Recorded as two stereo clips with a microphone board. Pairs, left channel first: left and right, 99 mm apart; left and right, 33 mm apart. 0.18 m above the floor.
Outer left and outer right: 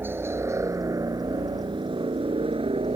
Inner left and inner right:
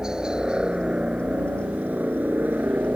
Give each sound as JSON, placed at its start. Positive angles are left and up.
{"t": 0.0, "sound": "a helicopter", "side_deg": -20}